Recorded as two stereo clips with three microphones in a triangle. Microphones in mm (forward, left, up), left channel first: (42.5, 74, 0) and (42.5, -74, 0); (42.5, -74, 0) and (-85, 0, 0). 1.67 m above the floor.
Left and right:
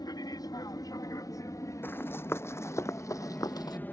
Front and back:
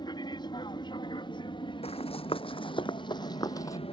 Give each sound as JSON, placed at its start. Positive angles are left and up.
{"t": 0.0, "sound": "an aircraft", "azimuth_deg": 30}
{"t": 1.8, "sound": "running footsteps", "azimuth_deg": 15}